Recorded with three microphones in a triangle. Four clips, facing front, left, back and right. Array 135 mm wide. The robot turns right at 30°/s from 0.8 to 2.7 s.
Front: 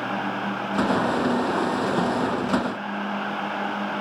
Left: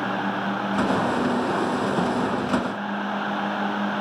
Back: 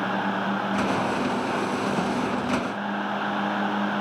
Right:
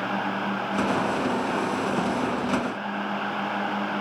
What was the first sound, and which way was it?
Only background noise.